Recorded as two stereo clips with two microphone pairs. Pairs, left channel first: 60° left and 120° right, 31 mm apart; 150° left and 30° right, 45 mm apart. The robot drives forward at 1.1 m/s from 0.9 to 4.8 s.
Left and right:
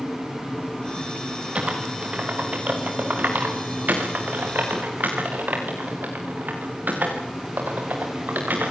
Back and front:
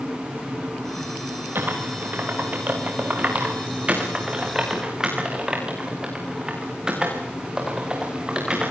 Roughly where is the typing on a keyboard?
Right.